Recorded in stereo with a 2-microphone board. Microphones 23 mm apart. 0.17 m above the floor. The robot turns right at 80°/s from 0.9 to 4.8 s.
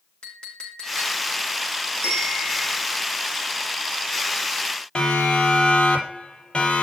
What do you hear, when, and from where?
0.2 s a clink: 50° left (ahead or behind), 5.5 m; by 1.3 s 80° left, 5.5 m
2.0 s a bell: 105° left, 5 m; by 2.8 s 165° left, 5 m
5.0 s a siren: 45° left (ahead or behind), 6 m; by 6.8 s 55° left (ahead or behind), 5.5 m